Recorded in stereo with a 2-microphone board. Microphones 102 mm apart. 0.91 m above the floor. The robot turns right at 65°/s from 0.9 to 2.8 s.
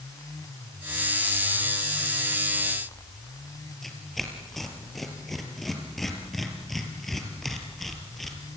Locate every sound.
3.8 s tearing paper: centre (ahead or behind), 4 m